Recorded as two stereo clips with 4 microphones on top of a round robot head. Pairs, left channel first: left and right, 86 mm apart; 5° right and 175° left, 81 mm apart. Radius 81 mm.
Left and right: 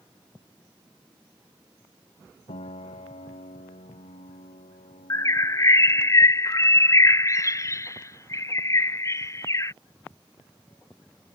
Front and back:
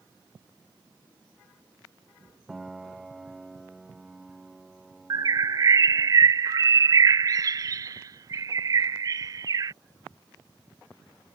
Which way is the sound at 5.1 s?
140° left.